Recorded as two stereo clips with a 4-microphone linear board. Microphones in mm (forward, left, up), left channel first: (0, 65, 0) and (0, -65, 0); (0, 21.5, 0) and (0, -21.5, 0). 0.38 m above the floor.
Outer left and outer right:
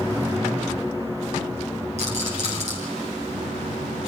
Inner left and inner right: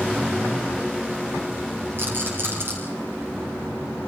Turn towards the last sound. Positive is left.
turn(degrees=-60)  # may be behind; listen again after turning